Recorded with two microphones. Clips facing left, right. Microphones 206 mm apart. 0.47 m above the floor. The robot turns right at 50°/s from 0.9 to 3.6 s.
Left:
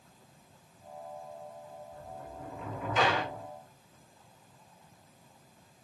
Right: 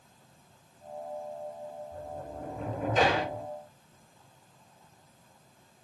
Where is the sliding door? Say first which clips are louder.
Right 5 dB; 105° right, 1.3 m; by 3.5 s 25° right, 1.3 m.